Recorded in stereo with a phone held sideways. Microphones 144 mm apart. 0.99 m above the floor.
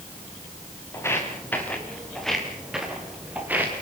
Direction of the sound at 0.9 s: 15° left (ahead or behind).